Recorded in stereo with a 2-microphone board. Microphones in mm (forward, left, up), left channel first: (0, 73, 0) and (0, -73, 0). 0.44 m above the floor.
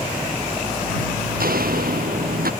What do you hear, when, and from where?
1.4 s footsteps: 90° right; by 2.5 s 85° right